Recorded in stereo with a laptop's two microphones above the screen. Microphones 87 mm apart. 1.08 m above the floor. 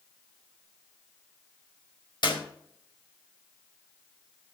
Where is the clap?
60° left (ahead or behind), 4.5 m.